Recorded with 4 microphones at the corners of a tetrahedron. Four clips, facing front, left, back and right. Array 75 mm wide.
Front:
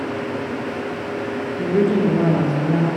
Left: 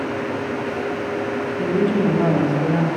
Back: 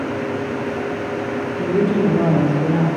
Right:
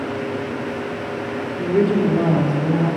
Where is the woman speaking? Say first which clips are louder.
Right 2 dB, even; 40° right, 1.6 m; by 2.9 s 45° left, 2 m.